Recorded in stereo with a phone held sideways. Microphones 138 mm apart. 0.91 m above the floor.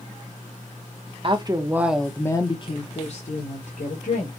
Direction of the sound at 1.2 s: 40° right (ahead or behind).